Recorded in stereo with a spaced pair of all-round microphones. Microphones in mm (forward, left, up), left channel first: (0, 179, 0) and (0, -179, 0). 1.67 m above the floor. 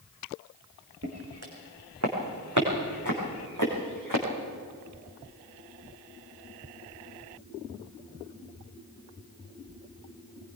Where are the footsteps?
45° right (ahead or behind), 5.5 m; by 4.2 s 60° right (ahead or behind), 6 m.